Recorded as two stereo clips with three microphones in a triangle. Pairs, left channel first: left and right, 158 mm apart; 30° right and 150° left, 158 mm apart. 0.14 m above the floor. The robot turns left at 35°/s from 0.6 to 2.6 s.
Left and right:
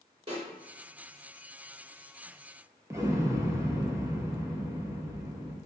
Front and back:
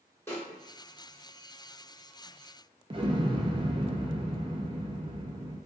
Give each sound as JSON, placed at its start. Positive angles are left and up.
{"t": 0.3, "sound": "a snare drum", "azimuth_deg": -90, "distance_m": 1.8}
{"t": 2.9, "sound": "an explosion", "azimuth_deg": -160, "distance_m": 0.6}